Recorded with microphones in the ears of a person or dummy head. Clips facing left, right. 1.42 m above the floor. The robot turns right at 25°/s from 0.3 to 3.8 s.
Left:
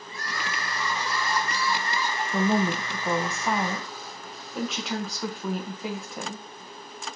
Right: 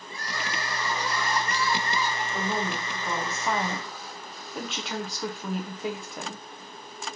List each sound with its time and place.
0.1 s crying: 155° right, 0.8 m; by 2.2 s 110° right, 0.8 m
2.3 s a woman speaking: 140° left, 0.8 m; by 6.5 s straight behind, 0.8 m